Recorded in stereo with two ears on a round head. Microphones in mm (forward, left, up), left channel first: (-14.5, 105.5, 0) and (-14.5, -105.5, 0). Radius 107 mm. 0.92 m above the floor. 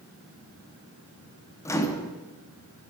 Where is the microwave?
15° left (ahead or behind), 1.0 m.